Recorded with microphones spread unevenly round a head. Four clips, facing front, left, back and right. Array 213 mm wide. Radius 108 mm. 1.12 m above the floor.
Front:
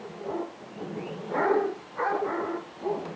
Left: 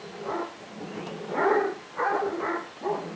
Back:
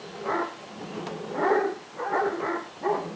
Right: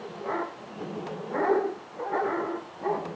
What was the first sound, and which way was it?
Only background noise.